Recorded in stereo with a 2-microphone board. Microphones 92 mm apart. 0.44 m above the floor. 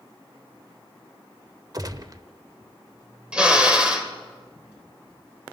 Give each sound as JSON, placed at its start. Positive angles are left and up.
{"t": 1.7, "sound": "a gunshot", "side_deg": -40, "distance_m": 0.9}
{"t": 3.3, "sound": "a drill", "side_deg": -10, "distance_m": 1.9}